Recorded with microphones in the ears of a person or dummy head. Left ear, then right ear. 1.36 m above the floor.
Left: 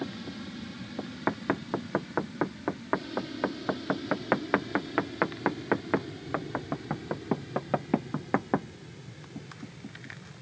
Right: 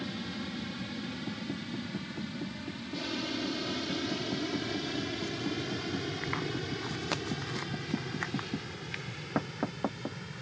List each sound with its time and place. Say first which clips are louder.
0.0 s an aircraft: even; 10° right (ahead or behind); by 10.4 s 55° right (ahead or behind)